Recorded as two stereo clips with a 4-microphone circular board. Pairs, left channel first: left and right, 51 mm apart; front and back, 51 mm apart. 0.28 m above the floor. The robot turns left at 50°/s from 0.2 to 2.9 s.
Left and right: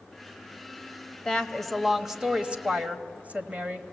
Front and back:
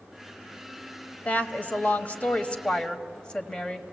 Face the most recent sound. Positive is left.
turn(degrees=-60)